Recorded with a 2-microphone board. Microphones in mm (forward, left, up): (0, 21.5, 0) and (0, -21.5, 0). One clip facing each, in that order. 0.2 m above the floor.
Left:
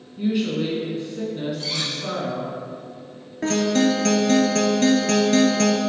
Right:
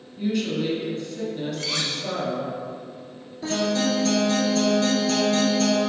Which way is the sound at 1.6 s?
55° right (ahead or behind).